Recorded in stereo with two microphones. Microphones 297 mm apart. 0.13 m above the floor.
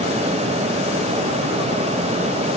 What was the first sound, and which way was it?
Only background noise.